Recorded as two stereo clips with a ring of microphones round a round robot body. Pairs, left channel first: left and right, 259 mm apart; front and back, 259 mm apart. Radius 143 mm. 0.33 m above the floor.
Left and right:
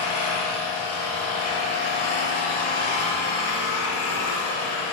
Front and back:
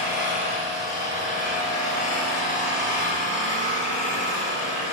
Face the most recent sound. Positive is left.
turn(degrees=60)